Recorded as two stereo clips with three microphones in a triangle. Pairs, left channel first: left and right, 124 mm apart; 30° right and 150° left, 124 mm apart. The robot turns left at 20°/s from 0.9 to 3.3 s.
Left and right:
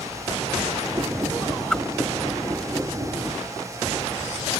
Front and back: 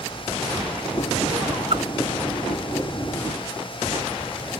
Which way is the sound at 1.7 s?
175° left.